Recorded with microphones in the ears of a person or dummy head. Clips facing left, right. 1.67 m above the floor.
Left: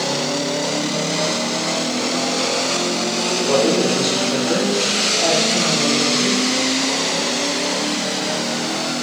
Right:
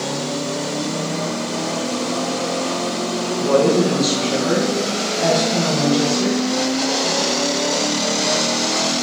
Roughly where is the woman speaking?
Right.